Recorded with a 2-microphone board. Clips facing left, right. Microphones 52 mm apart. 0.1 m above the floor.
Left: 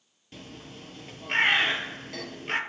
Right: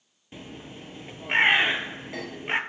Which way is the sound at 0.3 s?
20° right (ahead or behind).